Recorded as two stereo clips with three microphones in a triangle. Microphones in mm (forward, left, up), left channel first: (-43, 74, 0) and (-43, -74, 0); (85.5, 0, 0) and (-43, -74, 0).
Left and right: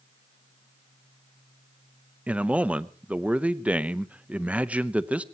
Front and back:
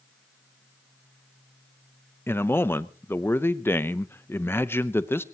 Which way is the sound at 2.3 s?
25° right.